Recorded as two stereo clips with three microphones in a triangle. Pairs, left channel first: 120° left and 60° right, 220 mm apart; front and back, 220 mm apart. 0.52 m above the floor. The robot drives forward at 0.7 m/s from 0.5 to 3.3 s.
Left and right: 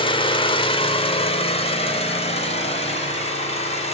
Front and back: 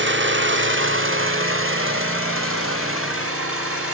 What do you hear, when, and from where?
0.0 s an engine running: straight behind, 1.3 m